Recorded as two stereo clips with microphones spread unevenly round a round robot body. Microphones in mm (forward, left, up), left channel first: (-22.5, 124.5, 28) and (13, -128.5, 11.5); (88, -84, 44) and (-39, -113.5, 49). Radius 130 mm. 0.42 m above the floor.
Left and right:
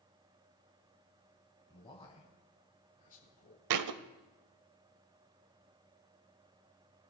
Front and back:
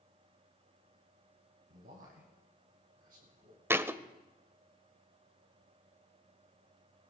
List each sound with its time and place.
1.7 s a man speaking: 170° left, 2.5 m; by 4.1 s 150° left, 4.5 m
3.7 s a thud: 90° right, 0.7 m